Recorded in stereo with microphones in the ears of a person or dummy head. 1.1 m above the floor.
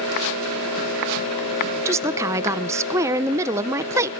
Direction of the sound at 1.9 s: 15° right (ahead or behind).